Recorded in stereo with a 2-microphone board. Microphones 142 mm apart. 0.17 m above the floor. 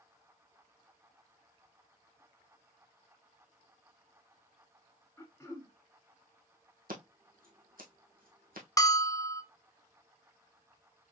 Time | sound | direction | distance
5.2 | throat clearing | 15° left (ahead or behind) | 2 m
6.9 | scissors | 85° right | 2.0 m
8.8 | a bell | 25° left (ahead or behind) | 0.9 m